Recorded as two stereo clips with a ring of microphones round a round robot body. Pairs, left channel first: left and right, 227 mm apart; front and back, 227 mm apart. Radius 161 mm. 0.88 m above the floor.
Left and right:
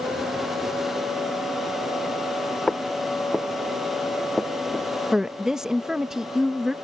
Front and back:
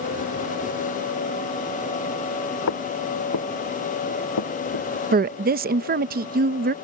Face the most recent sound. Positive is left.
turn(degrees=-175)